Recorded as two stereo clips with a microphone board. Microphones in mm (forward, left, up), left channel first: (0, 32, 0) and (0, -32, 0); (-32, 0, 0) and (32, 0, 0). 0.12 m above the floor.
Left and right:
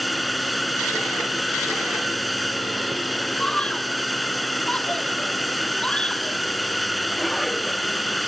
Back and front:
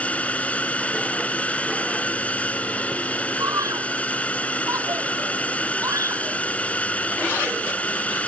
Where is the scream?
15° left.